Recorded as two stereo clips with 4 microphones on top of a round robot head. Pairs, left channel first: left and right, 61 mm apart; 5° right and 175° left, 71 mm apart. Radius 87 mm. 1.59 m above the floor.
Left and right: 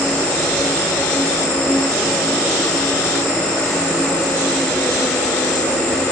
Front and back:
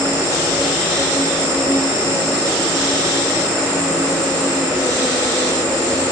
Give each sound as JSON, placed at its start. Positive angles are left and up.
{"t": 0.0, "sound": "an insect", "azimuth_deg": 70, "distance_m": 2.5}